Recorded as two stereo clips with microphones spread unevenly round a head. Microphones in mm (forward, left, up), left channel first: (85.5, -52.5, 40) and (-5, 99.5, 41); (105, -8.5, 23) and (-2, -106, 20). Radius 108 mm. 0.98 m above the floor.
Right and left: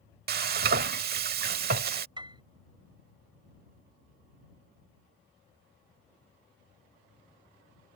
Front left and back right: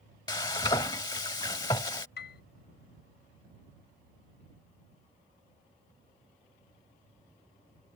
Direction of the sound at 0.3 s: 105° left.